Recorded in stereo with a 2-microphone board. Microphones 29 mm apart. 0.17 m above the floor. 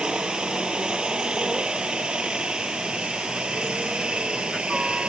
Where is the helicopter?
30° right (ahead or behind); by 5.1 s 35° right (ahead or behind).